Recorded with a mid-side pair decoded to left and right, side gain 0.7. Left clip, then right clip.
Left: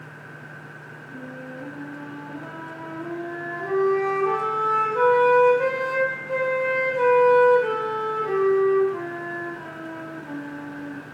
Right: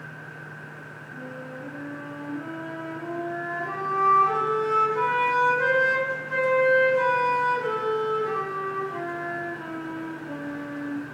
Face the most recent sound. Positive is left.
turn(degrees=5)